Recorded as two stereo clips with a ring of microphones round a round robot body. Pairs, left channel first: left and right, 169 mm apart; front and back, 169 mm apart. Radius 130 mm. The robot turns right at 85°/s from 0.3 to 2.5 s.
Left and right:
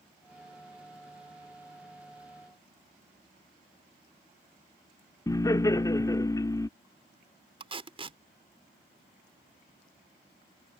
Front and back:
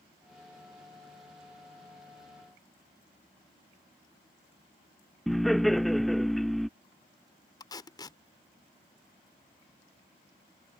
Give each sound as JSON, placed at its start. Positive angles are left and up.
{"t": 5.3, "sound": "laughter", "azimuth_deg": 90}
{"t": 7.6, "sound": "tape being pulled", "azimuth_deg": -55}